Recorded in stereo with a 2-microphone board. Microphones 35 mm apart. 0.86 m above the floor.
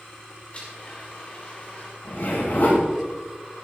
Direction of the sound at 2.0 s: 55° left (ahead or behind).